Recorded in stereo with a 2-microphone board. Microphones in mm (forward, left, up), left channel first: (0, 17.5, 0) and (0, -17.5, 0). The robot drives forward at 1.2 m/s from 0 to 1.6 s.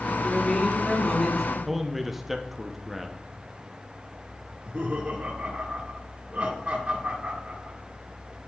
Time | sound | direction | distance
0.2 | a man speaking | 30° left (ahead or behind) | 1.4 m
1.6 | a man speaking | 5° right (ahead or behind) | 0.8 m
4.5 | laughter | 40° right (ahead or behind) | 1.7 m